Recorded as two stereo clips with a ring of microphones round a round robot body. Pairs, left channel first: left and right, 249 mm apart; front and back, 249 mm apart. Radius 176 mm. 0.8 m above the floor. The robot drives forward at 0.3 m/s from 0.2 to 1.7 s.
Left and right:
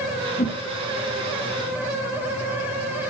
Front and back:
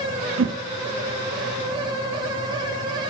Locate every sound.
0.4 s a whoosh: 155° left, 1.4 m